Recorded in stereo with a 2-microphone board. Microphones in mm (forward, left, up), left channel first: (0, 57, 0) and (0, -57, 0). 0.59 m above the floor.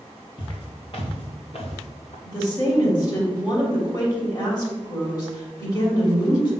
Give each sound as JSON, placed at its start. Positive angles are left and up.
{"t": 0.4, "sound": "footsteps", "side_deg": 40, "distance_m": 3.0}
{"t": 2.2, "sound": "a woman speaking", "side_deg": 35, "distance_m": 3.0}